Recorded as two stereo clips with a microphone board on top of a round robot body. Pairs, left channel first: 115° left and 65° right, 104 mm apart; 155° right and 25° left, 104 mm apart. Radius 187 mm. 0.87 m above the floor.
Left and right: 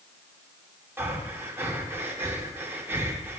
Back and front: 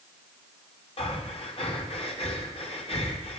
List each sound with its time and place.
1.0 s breathing: 140° right, 2 m